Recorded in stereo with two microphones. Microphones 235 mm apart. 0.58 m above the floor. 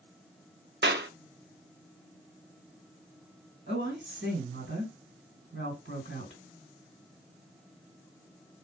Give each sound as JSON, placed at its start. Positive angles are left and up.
{"t": 0.8, "sound": "a clap", "side_deg": -45, "distance_m": 0.8}
{"t": 3.7, "sound": "a woman speaking", "side_deg": -55, "distance_m": 3.0}